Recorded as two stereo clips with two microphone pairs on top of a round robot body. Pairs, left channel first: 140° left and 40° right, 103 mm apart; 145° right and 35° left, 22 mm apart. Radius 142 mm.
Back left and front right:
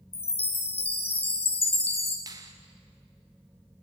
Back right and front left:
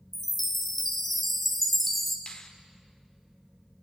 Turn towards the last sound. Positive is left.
turn(degrees=-90)